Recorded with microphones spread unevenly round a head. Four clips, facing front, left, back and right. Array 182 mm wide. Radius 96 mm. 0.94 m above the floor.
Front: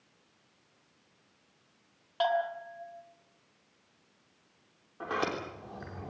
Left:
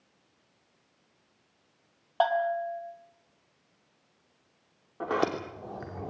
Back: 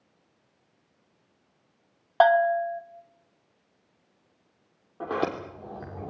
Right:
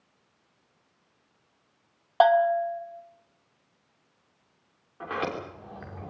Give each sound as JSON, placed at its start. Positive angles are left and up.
{"t": 2.2, "sound": "a bell", "azimuth_deg": -120, "distance_m": 1.7}
{"t": 5.0, "sound": "a sliding door", "azimuth_deg": 140, "distance_m": 3.0}